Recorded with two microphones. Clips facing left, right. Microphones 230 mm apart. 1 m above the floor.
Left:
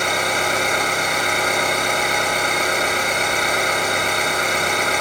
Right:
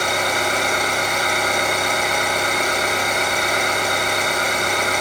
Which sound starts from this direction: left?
An engine running, at 0.0 s.